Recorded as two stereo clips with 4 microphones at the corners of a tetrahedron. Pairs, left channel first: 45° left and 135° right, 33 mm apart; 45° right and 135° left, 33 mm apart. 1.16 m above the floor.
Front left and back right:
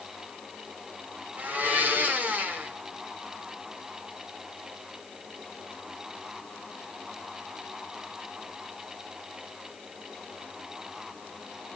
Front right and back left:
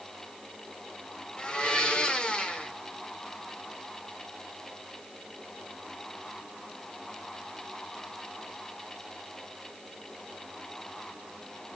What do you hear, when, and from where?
1.4 s a blender: 105° right, 1.7 m